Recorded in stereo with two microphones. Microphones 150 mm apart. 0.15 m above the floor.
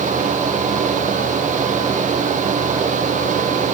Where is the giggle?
I don't hear a giggle.